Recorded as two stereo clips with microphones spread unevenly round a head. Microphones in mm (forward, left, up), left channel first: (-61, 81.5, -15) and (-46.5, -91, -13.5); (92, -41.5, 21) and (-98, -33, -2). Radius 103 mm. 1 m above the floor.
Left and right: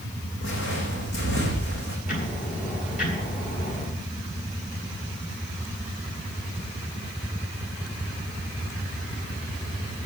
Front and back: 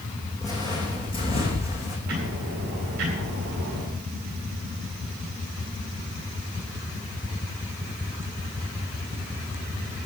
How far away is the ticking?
About 9 m.